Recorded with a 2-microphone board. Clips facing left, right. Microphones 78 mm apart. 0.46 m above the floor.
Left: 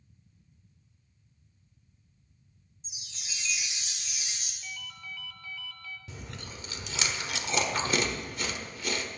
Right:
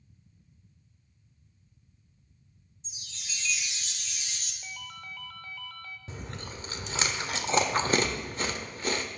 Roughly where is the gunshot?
No gunshot in this recording.